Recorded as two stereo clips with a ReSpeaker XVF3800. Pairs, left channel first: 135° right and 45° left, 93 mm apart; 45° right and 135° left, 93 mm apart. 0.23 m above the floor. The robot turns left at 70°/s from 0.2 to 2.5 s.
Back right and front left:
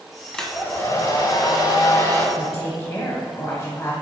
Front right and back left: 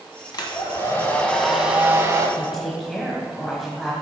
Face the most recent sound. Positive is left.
turn(degrees=-130)